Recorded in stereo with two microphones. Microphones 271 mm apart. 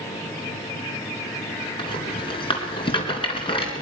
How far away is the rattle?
About 3.5 m.